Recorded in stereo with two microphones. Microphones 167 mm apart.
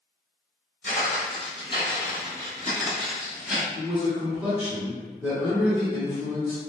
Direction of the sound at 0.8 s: 50° left (ahead or behind).